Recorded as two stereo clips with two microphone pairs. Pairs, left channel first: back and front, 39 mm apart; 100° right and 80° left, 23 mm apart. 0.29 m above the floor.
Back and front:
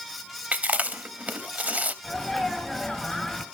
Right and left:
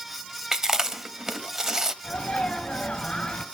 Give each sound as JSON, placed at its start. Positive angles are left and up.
{"t": 0.5, "sound": "chewing", "azimuth_deg": 20, "distance_m": 0.6}
{"t": 2.0, "sound": "a sneeze", "azimuth_deg": -110, "distance_m": 2.0}